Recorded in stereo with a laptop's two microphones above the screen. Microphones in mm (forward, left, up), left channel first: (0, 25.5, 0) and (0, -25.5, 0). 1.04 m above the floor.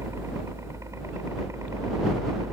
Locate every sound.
0.0 s a helicopter: 70° right (ahead or behind)